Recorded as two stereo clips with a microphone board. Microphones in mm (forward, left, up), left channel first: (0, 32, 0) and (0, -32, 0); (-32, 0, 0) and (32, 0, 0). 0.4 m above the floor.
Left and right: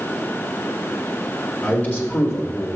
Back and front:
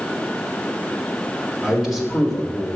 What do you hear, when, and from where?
1.6 s a man speaking: 60° left, 1.3 m; by 2.7 s 105° left, 1.4 m